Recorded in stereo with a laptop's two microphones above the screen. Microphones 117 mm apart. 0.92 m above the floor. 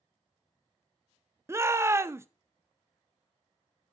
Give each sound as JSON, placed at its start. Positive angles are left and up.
{"t": 1.5, "sound": "a shout", "side_deg": -20, "distance_m": 0.6}